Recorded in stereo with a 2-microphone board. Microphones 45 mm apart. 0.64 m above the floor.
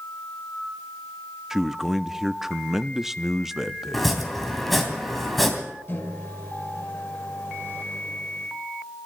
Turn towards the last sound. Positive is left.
turn(degrees=55)  # may be behind; listen again after turning